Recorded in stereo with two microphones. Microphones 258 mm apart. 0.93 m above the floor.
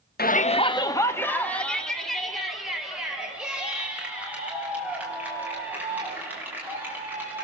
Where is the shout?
40° left (ahead or behind), 0.7 m; by 7.4 s 10° right (ahead or behind), 7.5 m.